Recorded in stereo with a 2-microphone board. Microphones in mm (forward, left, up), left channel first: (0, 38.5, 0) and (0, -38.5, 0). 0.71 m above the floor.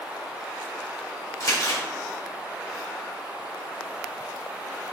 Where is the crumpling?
50° left (ahead or behind), 1.7 m.